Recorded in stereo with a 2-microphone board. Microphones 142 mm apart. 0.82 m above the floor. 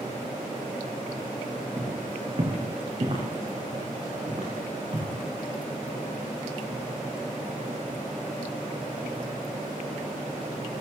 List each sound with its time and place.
1.8 s footsteps: 30° right (ahead or behind), 3 m; by 5.1 s 45° right (ahead or behind), 5 m